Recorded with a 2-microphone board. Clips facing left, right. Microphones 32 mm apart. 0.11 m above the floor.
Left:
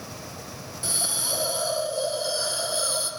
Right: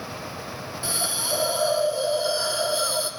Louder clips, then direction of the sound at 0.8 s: Right 2 dB; 20° right (ahead or behind).